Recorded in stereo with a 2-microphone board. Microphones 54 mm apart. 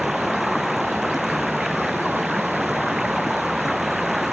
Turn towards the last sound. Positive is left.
turn(degrees=-5)  # may be behind; listen again after turning